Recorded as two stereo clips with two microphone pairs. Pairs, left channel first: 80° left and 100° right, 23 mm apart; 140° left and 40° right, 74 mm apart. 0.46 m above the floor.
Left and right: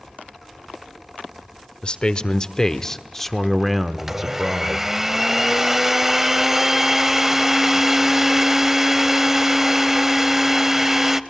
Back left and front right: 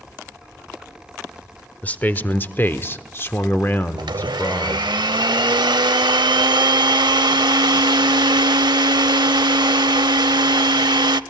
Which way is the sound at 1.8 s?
75° left.